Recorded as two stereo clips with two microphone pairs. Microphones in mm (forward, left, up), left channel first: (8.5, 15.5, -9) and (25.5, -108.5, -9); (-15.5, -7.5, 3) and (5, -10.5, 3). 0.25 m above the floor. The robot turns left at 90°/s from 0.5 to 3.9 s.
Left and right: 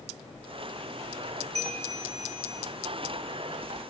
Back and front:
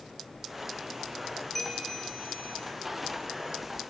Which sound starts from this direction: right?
A bell, at 1.6 s.